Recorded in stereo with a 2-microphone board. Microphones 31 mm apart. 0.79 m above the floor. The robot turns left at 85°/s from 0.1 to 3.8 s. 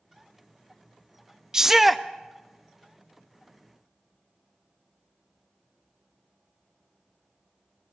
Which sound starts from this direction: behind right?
A shout, at 1.5 s.